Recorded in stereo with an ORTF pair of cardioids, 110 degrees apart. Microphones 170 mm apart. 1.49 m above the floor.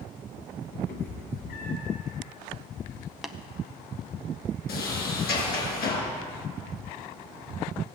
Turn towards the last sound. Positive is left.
turn(degrees=70)